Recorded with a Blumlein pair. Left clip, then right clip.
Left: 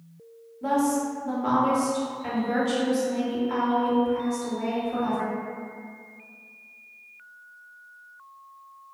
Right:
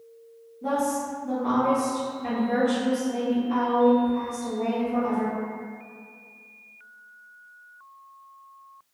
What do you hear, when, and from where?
0.6 s a woman speaking: 65° left, 1.2 m